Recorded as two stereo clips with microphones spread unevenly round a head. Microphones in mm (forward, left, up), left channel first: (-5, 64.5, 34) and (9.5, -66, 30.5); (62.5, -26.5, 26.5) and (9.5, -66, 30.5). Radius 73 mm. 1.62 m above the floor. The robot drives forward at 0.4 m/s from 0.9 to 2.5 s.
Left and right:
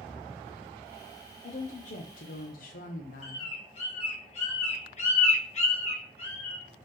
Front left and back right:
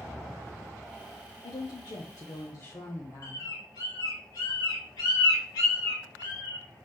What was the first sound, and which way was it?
A woman speaking, 60° left.